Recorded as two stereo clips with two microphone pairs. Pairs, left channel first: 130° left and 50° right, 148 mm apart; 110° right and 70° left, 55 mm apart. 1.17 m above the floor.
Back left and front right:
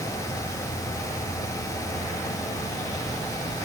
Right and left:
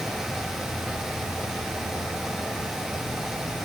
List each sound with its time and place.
Only background noise.